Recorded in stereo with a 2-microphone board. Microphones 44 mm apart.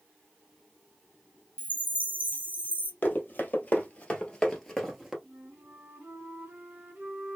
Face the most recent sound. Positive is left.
turn(degrees=-60)  # may be behind; listen again after turning